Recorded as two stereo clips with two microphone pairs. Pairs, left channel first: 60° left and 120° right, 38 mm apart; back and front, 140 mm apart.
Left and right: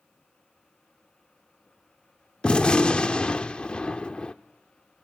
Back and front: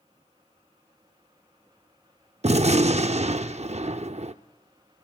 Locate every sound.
2.4 s a gunshot: 5° left, 0.5 m